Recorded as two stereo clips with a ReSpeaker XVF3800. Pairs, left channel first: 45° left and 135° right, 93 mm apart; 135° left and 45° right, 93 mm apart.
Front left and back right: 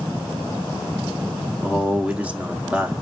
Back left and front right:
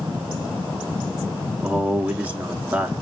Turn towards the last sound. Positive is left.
turn(degrees=-90)